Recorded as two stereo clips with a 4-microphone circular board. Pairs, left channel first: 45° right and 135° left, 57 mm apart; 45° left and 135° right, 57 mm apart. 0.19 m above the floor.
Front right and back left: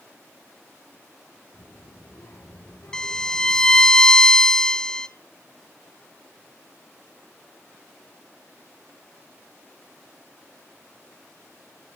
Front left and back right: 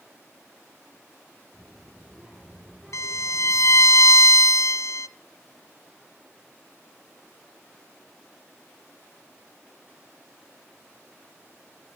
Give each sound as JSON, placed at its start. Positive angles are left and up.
{"t": 1.5, "sound": "a child speaking", "azimuth_deg": -55, "distance_m": 6.0}
{"t": 2.9, "sound": "a violin", "azimuth_deg": 35, "distance_m": 0.7}